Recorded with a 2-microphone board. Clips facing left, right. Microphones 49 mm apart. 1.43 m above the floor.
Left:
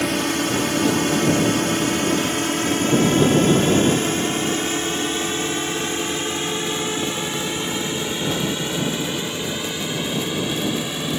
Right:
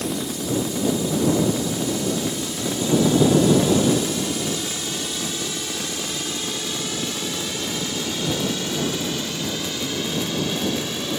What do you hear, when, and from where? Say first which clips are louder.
0.0 s a drone: left 6 dB; 65° left (ahead or behind); by 11.2 s 15° left (ahead or behind)